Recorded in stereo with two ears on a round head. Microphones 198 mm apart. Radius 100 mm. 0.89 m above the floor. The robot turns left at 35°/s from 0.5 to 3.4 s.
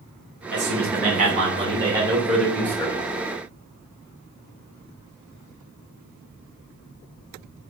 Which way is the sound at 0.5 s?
115° right.